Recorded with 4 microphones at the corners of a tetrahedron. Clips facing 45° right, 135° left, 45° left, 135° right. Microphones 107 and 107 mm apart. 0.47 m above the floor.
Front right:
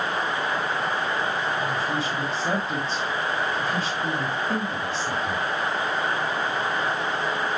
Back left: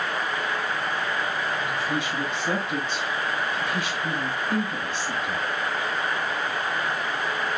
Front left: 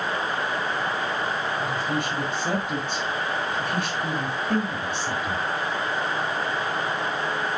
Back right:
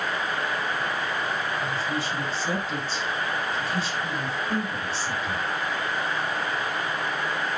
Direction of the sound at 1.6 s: 20° left.